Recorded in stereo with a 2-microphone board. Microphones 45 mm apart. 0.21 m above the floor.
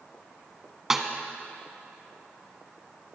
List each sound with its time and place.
0.9 s a snare drum: 10° right (ahead or behind), 0.8 m